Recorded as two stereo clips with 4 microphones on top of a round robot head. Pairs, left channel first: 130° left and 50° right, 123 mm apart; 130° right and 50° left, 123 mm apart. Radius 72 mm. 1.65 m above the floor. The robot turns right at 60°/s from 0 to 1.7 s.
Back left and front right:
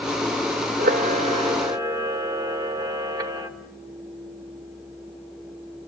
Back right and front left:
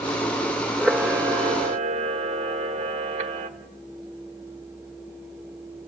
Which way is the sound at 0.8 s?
45° right.